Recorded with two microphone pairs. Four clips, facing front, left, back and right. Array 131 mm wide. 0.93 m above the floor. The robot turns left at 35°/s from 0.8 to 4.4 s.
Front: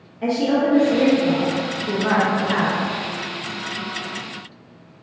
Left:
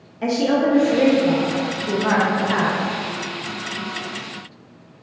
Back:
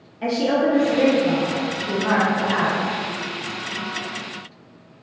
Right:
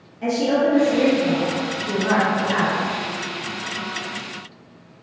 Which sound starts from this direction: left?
A woman speaking, at 0.2 s.